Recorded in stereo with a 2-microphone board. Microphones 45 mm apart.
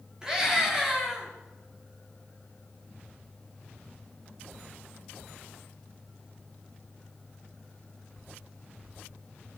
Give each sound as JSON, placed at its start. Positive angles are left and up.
{"t": 0.2, "sound": "a scream", "side_deg": -15, "distance_m": 7.0}